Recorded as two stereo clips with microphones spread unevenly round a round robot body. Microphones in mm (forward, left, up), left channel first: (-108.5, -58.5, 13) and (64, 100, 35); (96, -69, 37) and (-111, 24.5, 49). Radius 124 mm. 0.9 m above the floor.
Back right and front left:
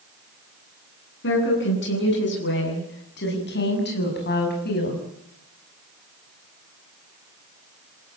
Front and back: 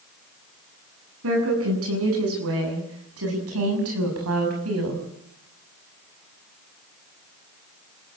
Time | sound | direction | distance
1.2 | a woman speaking | straight behind | 8.5 m